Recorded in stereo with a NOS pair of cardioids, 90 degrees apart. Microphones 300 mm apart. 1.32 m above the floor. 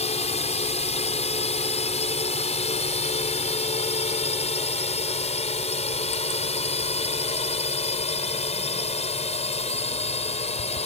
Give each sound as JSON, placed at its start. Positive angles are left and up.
{"t": 0.0, "sound": "a drone", "azimuth_deg": 20}